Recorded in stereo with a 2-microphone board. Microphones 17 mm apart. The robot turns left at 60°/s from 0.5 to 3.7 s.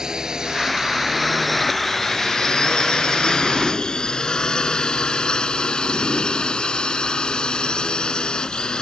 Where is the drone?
40° right (ahead or behind); by 8.8 s 70° left (ahead or behind).